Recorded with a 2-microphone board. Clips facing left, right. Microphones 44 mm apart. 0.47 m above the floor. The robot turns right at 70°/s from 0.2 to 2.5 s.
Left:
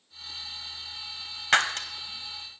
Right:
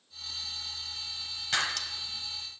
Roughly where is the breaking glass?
Left.